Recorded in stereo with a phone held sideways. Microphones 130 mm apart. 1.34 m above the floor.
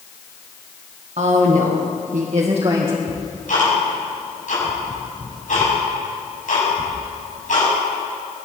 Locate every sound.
1.2 s a woman speaking: 55° right (ahead or behind), 1.9 m; by 3.0 s 30° right (ahead or behind), 1.7 m
3.1 s ticking: 70° left (ahead or behind), 6 m